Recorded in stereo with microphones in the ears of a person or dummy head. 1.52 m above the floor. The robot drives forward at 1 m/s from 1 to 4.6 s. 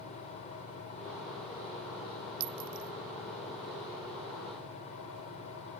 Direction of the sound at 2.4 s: 85° right.